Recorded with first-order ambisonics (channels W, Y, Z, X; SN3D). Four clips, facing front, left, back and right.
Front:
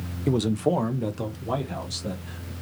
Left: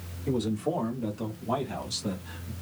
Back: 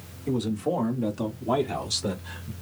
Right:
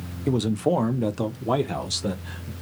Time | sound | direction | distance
0.3 | a man speaking | 40° right | 1.0 m